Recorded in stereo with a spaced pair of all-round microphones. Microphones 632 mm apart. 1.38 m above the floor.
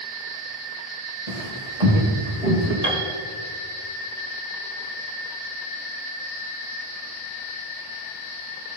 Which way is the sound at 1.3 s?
65° right (ahead or behind).